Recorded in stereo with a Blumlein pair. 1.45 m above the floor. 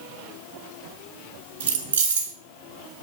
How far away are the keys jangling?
About 1.7 m.